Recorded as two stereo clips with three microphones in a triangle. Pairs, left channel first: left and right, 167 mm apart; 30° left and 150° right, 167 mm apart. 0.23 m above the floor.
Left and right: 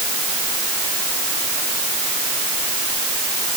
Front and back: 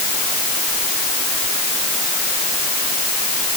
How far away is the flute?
No flute in this recording.